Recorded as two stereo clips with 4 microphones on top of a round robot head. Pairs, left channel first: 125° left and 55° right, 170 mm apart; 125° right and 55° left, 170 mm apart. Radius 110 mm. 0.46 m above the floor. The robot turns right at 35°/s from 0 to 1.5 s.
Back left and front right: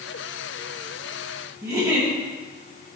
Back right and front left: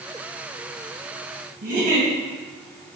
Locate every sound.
1.6 s a giggle: 15° left, 3 m